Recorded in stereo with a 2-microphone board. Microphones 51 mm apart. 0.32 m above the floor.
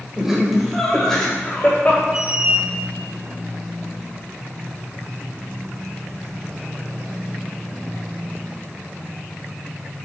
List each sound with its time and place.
0.2 s laughter: 15° right (ahead or behind), 1.3 m; by 2.0 s 35° left (ahead or behind), 1.4 m
2.1 s a squeak: 25° right (ahead or behind), 0.6 m